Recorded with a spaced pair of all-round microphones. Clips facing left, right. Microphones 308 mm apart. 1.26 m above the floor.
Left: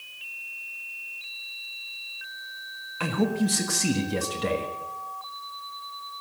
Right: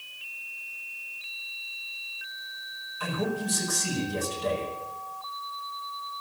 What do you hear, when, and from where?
3.0 s a man speaking: 75° left (ahead or behind), 1.5 m